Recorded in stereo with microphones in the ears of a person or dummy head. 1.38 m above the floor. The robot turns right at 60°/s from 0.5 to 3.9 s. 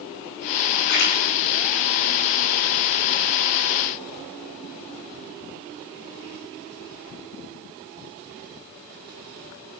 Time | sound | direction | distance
0.9 | a splash | 60° left (ahead or behind) | 6.5 m